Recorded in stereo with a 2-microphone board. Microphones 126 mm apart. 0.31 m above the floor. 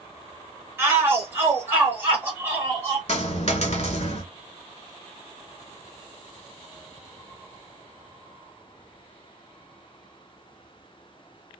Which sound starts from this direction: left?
A dropped coin, at 3.1 s.